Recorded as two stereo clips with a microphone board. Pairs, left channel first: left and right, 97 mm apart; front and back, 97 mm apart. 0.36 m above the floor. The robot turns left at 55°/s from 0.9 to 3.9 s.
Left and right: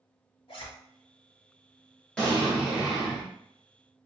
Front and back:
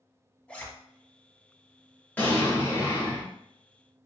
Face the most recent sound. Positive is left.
turn(degrees=-65)